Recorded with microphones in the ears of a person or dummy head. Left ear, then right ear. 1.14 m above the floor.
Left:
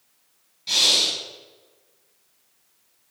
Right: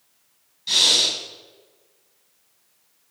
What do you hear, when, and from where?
0.7 s breathing: 5° left (ahead or behind), 4 m